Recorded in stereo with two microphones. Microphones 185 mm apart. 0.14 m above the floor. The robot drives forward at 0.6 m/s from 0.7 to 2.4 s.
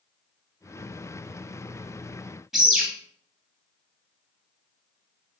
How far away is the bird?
About 1.6 m.